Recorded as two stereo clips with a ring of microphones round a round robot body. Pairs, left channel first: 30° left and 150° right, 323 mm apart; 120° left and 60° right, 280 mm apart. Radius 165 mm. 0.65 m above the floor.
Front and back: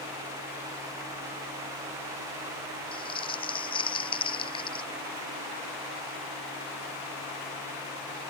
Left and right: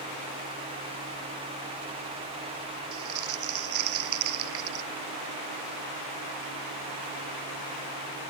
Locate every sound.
2.9 s crumpling: 45° right